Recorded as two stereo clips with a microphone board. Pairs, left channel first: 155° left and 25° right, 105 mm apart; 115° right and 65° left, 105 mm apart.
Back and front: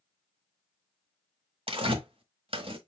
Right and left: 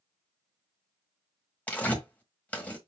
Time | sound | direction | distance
1.7 | tearing paper | 40° right | 1.1 m